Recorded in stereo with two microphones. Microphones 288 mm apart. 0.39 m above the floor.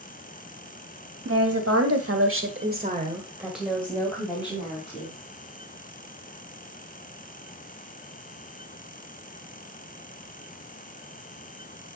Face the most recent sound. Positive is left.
turn(degrees=20)  # may be behind; listen again after turning